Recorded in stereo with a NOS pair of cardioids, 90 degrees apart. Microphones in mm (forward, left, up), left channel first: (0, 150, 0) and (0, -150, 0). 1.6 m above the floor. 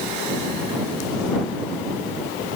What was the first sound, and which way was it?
Only background noise.